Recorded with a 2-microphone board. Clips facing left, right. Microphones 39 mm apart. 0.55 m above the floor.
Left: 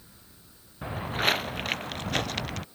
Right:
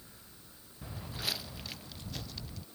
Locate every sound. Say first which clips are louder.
0.8 s footsteps: left 13 dB; 45° left (ahead or behind); by 2.6 s 65° left (ahead or behind)